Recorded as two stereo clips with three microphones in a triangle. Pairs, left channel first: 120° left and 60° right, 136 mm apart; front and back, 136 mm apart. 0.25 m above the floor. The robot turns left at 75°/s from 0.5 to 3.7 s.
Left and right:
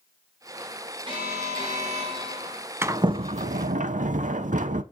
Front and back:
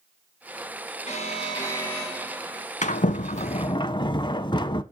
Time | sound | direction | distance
1.1 | an alarm | 15° right | 4 m
2.8 | a sliding door | 15° left | 0.5 m